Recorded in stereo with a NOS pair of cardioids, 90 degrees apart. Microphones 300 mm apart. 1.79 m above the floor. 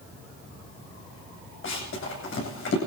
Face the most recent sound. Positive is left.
turn(degrees=45)